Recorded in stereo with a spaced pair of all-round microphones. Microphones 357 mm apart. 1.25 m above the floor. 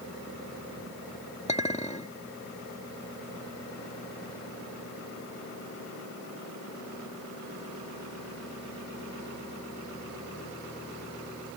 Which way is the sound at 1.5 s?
20° left (ahead or behind).